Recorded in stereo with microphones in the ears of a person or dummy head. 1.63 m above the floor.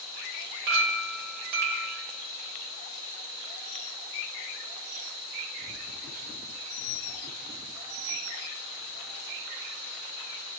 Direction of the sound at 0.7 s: 45° right (ahead or behind).